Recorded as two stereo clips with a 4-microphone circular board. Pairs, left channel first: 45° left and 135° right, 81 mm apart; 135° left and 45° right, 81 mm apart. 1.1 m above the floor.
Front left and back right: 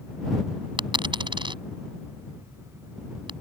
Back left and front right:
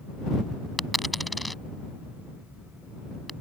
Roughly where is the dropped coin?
Behind right.